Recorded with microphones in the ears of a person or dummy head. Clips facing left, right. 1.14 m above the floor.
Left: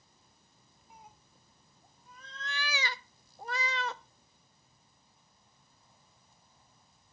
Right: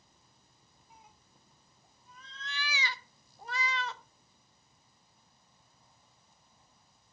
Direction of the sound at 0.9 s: 45° left (ahead or behind).